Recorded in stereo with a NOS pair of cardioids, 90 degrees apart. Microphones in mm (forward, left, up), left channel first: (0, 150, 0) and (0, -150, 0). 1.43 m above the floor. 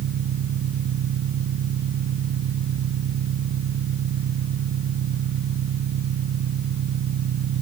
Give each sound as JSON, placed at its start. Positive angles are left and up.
{"t": 0.0, "sound": "an engine running", "azimuth_deg": -65}